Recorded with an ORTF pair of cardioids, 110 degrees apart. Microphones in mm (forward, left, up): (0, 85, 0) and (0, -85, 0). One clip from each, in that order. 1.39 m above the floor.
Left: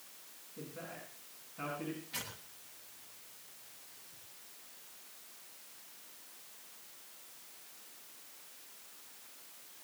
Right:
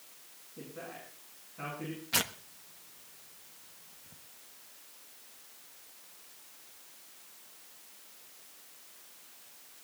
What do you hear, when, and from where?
0.6 s a man speaking: 5° right, 7.5 m; by 2.0 s 5° left, 8 m
2.1 s tearing paper: 70° right, 1.2 m